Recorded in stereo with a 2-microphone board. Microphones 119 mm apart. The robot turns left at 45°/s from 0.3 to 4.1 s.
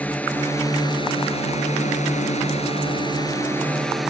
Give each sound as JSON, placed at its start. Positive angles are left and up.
{"t": 0.0, "sound": "a drone", "azimuth_deg": 165}